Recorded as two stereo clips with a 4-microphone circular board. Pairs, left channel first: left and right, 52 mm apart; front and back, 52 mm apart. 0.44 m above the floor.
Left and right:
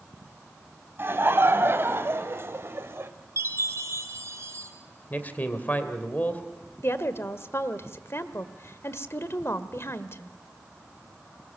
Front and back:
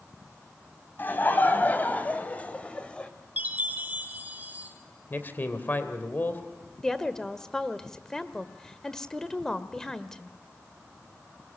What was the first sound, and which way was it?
Laughter, 45° right.